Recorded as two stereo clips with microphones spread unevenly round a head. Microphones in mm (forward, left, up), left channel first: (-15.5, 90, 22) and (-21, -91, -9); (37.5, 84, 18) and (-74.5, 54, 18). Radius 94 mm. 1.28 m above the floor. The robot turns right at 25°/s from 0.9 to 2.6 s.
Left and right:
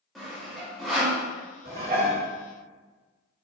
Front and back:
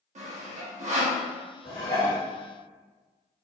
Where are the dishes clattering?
40° right, 1.8 m; by 2.2 s 25° right, 1.8 m.